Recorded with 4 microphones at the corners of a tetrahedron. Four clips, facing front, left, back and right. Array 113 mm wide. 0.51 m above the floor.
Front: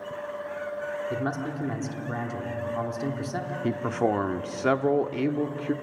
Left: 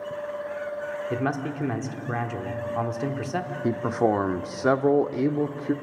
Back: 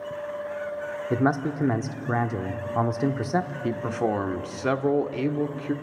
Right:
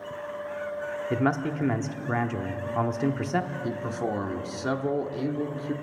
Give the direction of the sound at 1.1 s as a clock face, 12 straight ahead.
6 o'clock.